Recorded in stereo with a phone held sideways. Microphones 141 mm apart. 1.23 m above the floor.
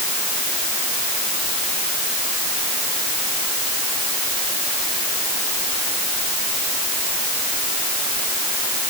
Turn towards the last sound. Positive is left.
No sound to turn to.